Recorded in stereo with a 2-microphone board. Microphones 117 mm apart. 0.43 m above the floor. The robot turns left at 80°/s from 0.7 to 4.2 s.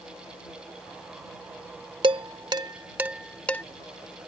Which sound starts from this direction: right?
Dishes clattering, at 2.0 s.